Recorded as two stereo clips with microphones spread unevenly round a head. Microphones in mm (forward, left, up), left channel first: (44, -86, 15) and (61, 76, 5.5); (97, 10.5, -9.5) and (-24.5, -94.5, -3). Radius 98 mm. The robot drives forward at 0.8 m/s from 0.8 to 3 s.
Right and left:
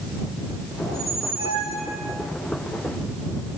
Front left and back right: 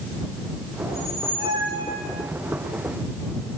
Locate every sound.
0.8 s a squeak: 145° left, 9 m; by 2.3 s 150° left, 10 m